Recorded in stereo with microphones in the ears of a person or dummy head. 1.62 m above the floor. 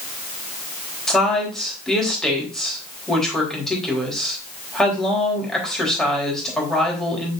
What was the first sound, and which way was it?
A woman speaking, 5° left (ahead or behind).